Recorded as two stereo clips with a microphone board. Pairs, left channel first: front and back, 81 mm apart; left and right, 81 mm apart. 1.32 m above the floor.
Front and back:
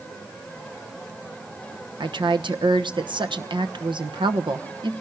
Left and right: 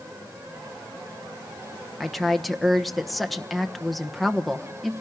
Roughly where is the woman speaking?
Behind.